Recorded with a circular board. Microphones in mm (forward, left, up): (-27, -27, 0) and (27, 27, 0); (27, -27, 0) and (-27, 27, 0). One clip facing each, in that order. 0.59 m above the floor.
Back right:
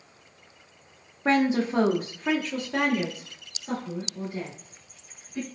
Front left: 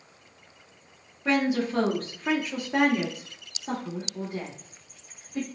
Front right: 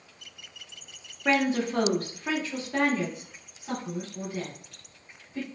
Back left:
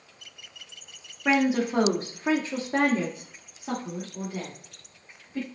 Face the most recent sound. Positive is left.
turn(degrees=80)